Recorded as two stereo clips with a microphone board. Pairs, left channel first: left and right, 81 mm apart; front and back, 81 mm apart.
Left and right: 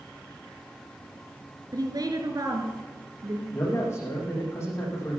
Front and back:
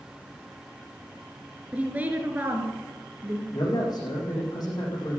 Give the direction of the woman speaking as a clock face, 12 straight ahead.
4 o'clock.